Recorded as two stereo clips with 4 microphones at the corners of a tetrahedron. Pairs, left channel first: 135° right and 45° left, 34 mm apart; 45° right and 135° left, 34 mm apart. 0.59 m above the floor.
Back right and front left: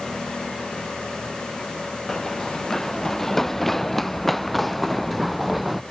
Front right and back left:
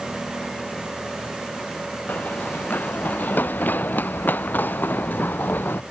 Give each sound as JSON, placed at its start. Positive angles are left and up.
{"t": 2.1, "sound": "running footsteps", "azimuth_deg": -60}